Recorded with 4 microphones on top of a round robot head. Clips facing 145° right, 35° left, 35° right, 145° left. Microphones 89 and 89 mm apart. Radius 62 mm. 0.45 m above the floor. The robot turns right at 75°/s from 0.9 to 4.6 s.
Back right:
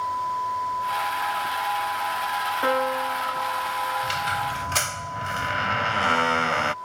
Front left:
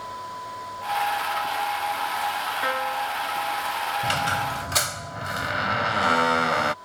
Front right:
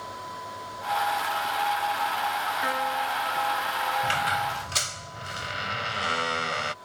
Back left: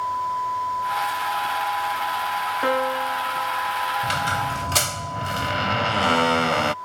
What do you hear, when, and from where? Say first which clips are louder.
2.6 s a piano: back right 4 dB, back left 7 dB; 155° left; by 4.1 s 90° right
4.0 s a squeak: front left 1 dB, back left 2 dB; 70° left; by 6.7 s 110° left